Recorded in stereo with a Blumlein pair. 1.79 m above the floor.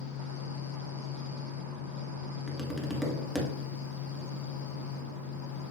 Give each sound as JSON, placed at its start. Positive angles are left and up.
{"t": 0.0, "sound": "a fan", "azimuth_deg": 60, "distance_m": 1.0}
{"t": 2.5, "sound": "tapping", "azimuth_deg": 5, "distance_m": 1.2}